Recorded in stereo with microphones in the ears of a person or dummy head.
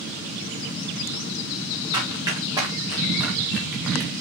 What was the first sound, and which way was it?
Running footsteps, 25° right (ahead or behind).